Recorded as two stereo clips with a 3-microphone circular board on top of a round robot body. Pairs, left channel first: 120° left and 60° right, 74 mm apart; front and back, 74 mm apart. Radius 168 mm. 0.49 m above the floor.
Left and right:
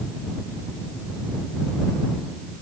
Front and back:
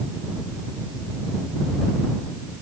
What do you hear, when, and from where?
Only background noise.